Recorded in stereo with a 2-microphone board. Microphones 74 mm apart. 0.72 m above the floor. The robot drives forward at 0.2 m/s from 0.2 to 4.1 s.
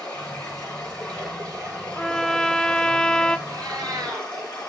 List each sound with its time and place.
0.0 s running water: 15° left (ahead or behind), 8.5 m
1.9 s a trumpet: 10° left (ahead or behind), 0.7 m; by 3.4 s 15° left (ahead or behind), 0.5 m
3.5 s a cat meowing: 70° right (ahead or behind), 3 m; by 4.3 s 65° right (ahead or behind), 3 m